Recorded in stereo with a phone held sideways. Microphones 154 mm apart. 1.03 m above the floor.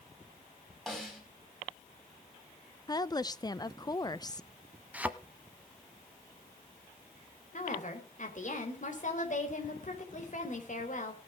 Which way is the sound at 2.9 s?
25° left (ahead or behind).